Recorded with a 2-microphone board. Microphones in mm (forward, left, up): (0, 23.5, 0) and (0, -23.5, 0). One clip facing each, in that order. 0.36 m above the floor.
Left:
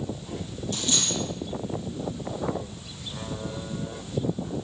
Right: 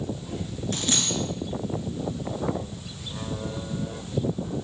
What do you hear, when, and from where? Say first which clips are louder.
0.7 s a dropped coin: right 1 dB; 50° right (ahead or behind), 2.0 m